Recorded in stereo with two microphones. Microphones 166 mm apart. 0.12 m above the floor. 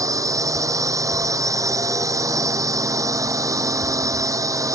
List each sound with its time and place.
0.0 s a drone: 20° right (ahead or behind)